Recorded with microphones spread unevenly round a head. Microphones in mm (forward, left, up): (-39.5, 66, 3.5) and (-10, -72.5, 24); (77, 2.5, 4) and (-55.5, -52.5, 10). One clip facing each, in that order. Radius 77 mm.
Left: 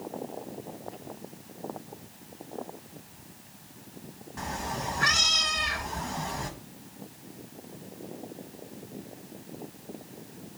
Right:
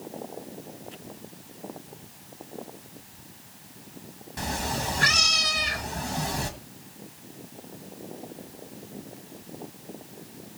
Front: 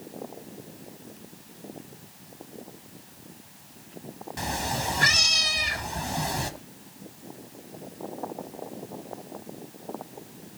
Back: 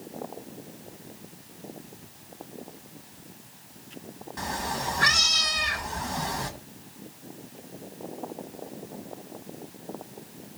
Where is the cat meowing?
35° right, 1.4 m.